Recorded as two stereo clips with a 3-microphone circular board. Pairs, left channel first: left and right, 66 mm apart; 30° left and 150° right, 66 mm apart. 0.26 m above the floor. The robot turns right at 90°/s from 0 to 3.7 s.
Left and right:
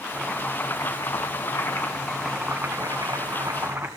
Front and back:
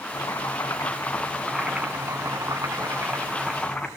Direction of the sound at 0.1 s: 5° right.